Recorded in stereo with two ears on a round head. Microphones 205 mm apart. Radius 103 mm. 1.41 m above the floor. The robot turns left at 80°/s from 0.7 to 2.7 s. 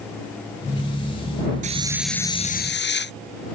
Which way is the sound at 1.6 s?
145° right.